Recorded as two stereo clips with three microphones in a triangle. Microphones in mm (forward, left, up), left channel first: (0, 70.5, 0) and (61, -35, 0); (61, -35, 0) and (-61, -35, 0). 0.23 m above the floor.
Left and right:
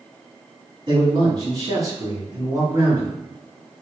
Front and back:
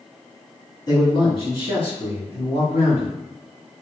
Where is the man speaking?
40° right, 1.6 m; by 3.1 s 10° left, 2.5 m.